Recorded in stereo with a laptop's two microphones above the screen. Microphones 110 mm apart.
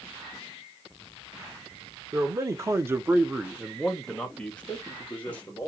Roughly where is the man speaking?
Right.